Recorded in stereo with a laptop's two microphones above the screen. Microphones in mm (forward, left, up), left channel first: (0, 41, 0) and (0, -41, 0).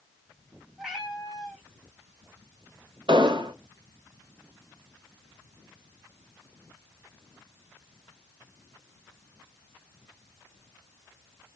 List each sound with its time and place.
0.8 s a cat meowing: 5° right (ahead or behind), 0.9 m
3.1 s an explosion: 70° right (ahead or behind), 0.6 m